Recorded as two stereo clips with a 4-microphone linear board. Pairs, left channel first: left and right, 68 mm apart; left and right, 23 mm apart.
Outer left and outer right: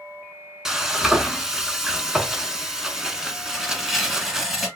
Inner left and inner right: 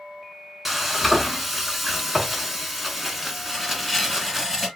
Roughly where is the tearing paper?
Centre.